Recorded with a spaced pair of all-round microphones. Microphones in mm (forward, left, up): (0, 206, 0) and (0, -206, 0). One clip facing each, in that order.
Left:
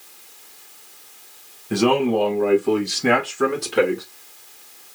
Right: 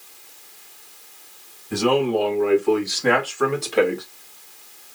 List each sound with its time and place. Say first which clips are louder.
1.7 s a man speaking: left 1 dB; 75° left (ahead or behind), 1.2 m; by 4.0 s 20° left (ahead or behind), 1.6 m